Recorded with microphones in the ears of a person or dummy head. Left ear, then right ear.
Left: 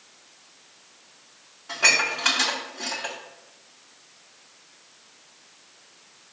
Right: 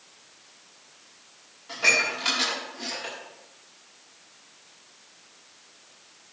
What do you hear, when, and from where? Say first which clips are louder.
1.7 s dishes clattering: left 2 dB; 25° left (ahead or behind), 2 m